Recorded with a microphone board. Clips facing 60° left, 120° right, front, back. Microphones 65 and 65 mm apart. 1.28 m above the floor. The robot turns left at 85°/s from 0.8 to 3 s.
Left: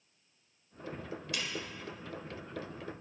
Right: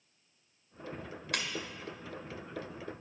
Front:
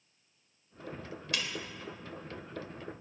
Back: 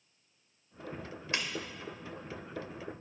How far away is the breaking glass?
About 1.7 m.